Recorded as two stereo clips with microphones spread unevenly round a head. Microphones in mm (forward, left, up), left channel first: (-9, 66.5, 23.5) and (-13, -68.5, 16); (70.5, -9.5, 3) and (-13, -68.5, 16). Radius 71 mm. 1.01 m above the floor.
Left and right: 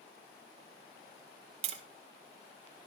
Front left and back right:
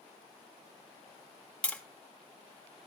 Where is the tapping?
45° right, 2 m.